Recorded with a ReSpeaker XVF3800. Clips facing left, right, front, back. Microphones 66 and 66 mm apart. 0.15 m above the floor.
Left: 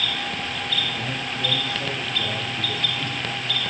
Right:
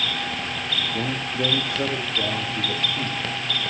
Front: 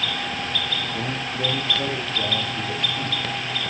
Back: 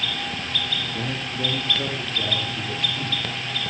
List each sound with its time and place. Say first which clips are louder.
0.9 s a man speaking: right 3 dB, front 1 dB; 75° right, 6 m